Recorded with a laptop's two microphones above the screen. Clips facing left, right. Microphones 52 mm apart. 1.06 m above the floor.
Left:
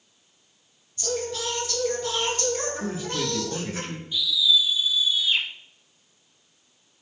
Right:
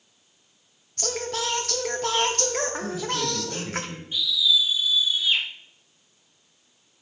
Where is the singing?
75° right (ahead or behind), 1.2 m.